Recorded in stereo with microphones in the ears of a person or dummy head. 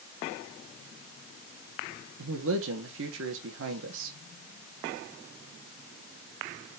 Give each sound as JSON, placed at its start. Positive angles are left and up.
{"t": 2.2, "sound": "a man speaking", "side_deg": -70, "distance_m": 1.3}